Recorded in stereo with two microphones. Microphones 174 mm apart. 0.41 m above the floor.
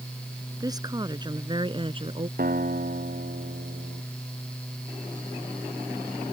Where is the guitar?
55° right (ahead or behind).